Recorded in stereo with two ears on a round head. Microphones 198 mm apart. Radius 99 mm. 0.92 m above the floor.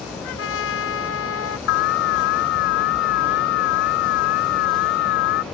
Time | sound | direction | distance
0.2 | a trumpet | 70° left (ahead or behind) | ?
1.7 | an alarm | 55° left (ahead or behind) | ?